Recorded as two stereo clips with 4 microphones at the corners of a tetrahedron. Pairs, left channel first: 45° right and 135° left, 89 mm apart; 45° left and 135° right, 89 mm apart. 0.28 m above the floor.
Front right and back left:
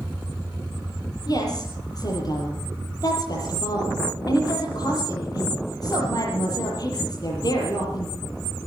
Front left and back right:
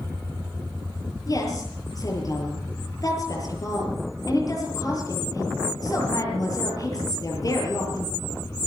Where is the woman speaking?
5° right, 7.5 m.